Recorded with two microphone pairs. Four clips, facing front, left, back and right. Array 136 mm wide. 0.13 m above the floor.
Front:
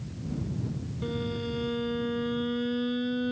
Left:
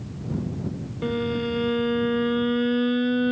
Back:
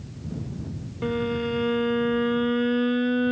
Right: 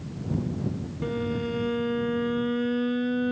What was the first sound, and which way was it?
A violin, 155° left.